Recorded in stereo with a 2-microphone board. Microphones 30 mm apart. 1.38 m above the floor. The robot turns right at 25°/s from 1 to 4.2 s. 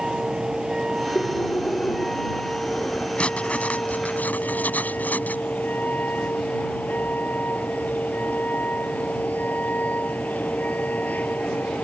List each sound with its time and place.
0.0 s a vehicle: 20° right; by 11.8 s 60° left
1.1 s breathing: 95° left; by 3.1 s 145° left
3.2 s writing: 40° left (ahead or behind); by 5.4 s 65° left (ahead or behind)